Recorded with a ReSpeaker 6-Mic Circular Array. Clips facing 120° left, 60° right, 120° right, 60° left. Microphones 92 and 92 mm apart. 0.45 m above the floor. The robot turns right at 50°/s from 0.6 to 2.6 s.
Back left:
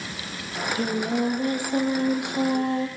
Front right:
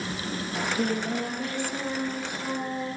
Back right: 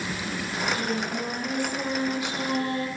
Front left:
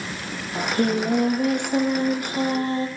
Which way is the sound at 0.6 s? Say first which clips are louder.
Back left 2 dB, front left 7 dB; 20° left.